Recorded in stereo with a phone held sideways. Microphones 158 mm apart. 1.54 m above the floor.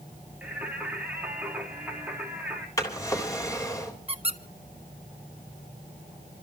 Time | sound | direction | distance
0.4 | singing | 10° right (ahead or behind) | 3.5 m
2.8 | a drawer | 20° left (ahead or behind) | 3.5 m
4.1 | a squeak | 40° right (ahead or behind) | 1.0 m